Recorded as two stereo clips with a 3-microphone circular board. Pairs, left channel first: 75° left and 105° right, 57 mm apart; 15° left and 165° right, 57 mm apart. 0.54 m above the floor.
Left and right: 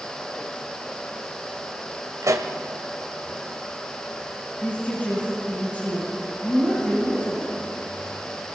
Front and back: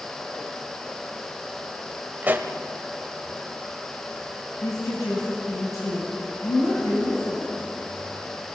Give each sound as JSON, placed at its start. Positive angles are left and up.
{"t": 2.2, "sound": "a pop", "azimuth_deg": -110, "distance_m": 1.4}
{"t": 4.6, "sound": "a woman speaking", "azimuth_deg": 10, "distance_m": 4.0}